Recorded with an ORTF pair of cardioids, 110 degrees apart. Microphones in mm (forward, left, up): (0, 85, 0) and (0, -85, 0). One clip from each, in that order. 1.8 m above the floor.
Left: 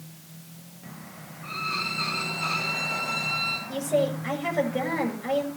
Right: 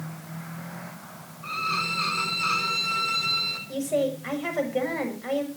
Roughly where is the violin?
Ahead right.